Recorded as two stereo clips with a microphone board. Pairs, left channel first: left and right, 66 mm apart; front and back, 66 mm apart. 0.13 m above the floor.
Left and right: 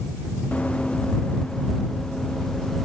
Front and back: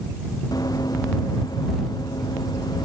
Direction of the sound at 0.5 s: 20° left.